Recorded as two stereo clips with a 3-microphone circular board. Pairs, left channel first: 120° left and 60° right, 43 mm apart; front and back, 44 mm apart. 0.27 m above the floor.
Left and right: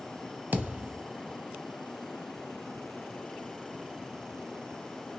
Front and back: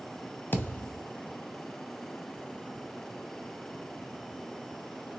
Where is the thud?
25° right, 0.7 m.